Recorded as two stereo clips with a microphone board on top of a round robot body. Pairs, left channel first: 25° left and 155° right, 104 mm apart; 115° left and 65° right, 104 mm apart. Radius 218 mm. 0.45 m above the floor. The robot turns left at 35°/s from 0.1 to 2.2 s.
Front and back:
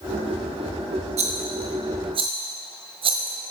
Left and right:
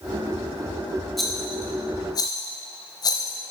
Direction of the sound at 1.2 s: 160° right.